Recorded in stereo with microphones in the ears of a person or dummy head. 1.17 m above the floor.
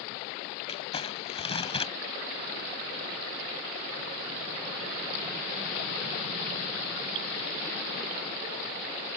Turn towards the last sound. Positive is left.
turn(degrees=35)  # may be behind; listen again after turning